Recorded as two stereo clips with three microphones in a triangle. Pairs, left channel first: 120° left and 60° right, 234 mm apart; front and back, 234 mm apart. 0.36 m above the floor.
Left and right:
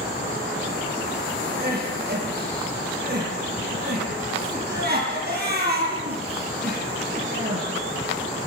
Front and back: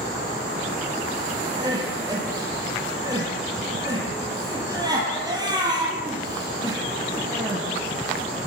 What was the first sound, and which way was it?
Crying, 105° right.